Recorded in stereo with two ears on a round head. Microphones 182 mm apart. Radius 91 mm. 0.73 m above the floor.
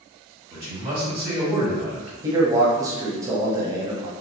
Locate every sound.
0.5 s a man speaking: 20° right (ahead or behind), 2.0 m
2.2 s a man speaking: 15° right (ahead or behind), 0.7 m